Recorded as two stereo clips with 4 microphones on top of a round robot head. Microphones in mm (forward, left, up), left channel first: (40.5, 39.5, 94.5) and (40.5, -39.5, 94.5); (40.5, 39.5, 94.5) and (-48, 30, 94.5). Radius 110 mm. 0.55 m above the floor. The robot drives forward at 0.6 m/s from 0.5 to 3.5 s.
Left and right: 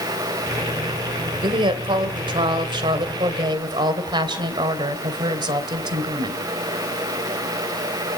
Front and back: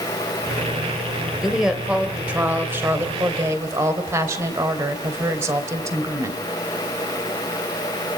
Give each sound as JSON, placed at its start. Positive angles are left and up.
{"t": 1.4, "sound": "a woman speaking", "azimuth_deg": -90, "distance_m": 2.5}